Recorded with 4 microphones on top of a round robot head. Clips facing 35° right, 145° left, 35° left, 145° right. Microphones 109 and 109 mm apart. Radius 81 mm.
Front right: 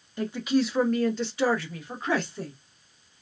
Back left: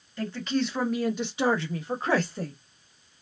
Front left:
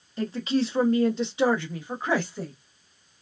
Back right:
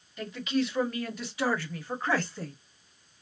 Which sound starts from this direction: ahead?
A woman speaking, at 0.2 s.